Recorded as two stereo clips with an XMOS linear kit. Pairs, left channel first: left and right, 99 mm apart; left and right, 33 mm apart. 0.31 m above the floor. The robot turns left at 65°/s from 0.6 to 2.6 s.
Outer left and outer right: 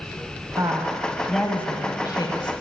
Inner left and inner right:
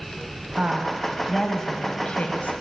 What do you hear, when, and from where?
0.6 s a woman speaking: 135° right, 1.4 m; by 2.5 s 100° left, 1.4 m